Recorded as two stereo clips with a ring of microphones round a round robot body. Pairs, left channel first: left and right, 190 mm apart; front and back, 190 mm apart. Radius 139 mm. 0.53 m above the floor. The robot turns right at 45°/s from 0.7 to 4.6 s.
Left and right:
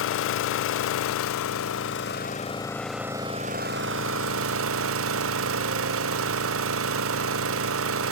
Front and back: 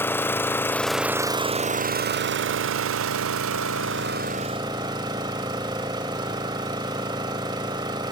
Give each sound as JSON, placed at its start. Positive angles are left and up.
{"t": 0.0, "sound": "an engine running", "azimuth_deg": 80, "distance_m": 0.7}